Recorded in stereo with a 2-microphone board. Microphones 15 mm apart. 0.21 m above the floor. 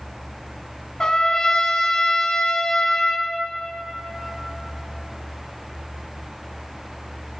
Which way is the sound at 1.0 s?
55° left (ahead or behind).